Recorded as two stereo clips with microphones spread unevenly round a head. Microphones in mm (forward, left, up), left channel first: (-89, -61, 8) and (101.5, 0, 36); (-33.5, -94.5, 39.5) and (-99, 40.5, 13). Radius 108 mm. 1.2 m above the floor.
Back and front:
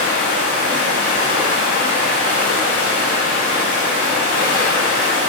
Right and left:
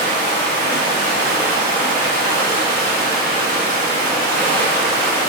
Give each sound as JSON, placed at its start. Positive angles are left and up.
{"t": 0.0, "sound": "running water", "azimuth_deg": 110, "distance_m": 0.7}